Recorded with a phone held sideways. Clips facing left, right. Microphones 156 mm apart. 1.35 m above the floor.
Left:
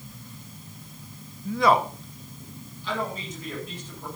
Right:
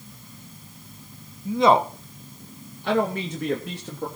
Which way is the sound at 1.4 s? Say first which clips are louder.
Right 3 dB; 15° right (ahead or behind).